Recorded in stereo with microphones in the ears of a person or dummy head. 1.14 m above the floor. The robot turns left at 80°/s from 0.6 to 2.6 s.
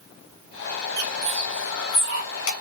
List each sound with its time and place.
1.0 s a bird: 55° right (ahead or behind), 1.0 m; by 2.5 s 65° left (ahead or behind), 1.0 m